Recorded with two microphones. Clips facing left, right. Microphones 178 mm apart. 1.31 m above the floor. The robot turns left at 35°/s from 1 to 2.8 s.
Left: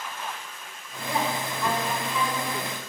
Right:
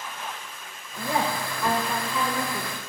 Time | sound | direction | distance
1.0 | a woman speaking | 150° right | 4 m